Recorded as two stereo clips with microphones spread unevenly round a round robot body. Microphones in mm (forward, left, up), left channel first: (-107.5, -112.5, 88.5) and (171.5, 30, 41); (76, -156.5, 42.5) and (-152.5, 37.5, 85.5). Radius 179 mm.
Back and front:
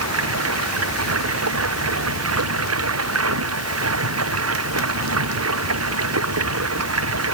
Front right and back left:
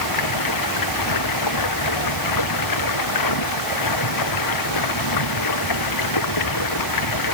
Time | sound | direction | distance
0.0 | running water | 15° right | ?